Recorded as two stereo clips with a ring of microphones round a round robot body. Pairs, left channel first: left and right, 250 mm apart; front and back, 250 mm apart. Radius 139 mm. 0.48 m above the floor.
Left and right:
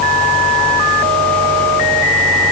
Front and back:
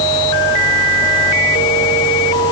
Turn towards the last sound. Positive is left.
No sound to turn to.